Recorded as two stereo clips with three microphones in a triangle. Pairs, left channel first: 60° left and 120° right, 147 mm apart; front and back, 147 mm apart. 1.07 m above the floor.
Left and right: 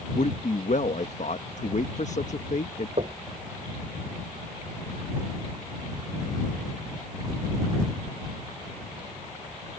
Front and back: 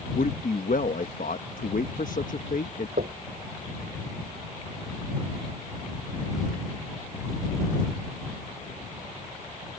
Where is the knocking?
165° right.